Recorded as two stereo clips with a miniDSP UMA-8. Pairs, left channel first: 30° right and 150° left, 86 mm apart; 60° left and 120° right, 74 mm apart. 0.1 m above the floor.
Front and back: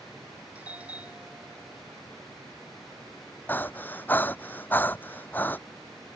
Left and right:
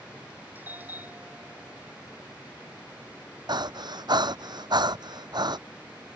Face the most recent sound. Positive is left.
turn(degrees=-100)